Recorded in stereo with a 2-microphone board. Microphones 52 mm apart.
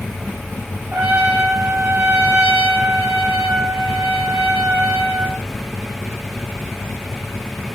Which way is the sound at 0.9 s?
40° right (ahead or behind).